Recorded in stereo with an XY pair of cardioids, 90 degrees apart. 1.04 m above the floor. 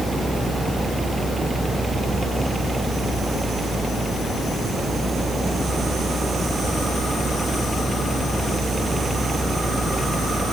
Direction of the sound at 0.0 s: 20° right.